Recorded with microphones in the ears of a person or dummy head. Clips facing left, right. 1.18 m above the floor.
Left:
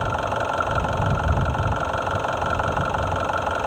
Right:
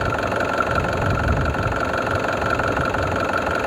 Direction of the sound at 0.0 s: 30° right (ahead or behind).